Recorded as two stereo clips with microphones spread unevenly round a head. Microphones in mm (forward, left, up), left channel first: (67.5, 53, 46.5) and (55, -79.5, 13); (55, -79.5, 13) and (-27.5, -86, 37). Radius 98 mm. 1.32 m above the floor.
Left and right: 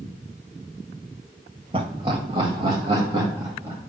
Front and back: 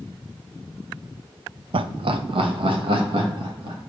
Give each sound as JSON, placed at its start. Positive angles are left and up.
{"t": 1.7, "sound": "laughter", "azimuth_deg": -155, "distance_m": 0.5}